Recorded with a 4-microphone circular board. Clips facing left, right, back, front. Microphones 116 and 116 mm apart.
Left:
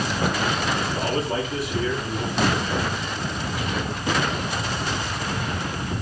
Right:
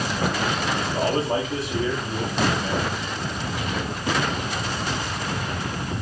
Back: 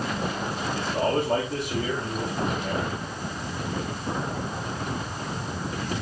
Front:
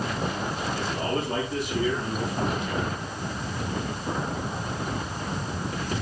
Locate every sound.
0.8 s a man speaking: 130° right, 3 m